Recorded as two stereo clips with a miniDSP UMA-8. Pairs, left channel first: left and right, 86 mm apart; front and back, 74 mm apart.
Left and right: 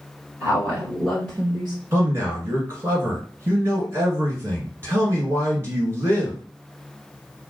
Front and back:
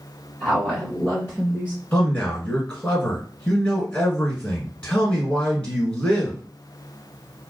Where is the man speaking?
55° right, 1.6 m.